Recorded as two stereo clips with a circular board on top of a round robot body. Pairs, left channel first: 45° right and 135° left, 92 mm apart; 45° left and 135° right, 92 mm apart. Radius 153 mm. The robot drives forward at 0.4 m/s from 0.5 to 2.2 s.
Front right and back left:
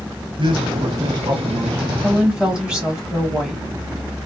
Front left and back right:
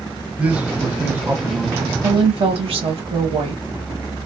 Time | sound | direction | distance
0.4 | a man speaking | 150° left | 1.2 m
2.0 | a woman speaking | 145° right | 1.1 m